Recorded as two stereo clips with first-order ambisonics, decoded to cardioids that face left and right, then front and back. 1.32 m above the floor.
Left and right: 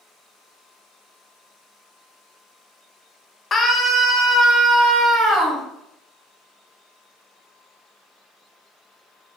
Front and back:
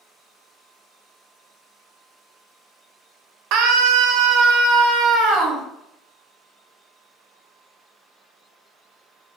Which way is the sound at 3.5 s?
155° left.